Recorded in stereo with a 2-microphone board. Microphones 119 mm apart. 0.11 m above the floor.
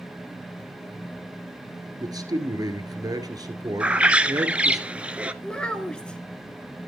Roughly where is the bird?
Centre.